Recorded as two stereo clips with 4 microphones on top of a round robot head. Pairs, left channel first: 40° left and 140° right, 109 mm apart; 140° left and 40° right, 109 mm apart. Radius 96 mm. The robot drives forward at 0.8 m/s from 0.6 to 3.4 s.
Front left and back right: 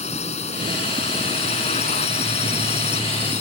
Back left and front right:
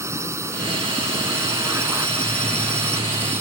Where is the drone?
25° left.